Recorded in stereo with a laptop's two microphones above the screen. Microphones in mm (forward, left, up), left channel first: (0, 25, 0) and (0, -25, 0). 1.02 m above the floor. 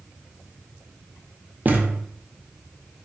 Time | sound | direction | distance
1.6 | a thud | 35° right (ahead or behind) | 0.5 m